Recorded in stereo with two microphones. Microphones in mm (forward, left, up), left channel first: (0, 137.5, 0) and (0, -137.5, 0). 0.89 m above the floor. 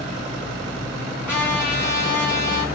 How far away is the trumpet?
About 1.8 m.